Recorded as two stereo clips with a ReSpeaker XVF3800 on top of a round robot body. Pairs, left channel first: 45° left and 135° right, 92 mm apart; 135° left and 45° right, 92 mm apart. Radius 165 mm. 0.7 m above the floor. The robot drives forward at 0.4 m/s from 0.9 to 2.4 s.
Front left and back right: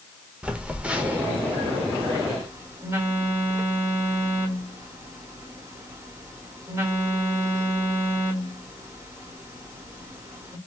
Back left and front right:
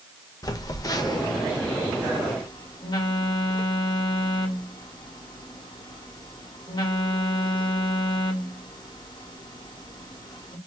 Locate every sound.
0.4 s a phone buzzing: 155° left, 0.8 m; by 10.6 s 170° left, 1.3 m